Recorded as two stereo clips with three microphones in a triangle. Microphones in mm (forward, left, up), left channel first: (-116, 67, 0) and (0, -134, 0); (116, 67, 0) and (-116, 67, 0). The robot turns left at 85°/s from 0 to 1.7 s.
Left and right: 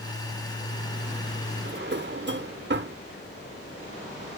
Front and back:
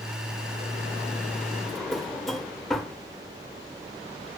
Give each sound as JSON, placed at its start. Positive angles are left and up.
{"t": 1.6, "sound": "a drawer", "azimuth_deg": -85, "distance_m": 1.0}